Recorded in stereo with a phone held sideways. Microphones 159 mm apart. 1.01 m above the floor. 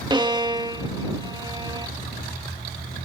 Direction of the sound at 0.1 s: 30° right (ahead or behind).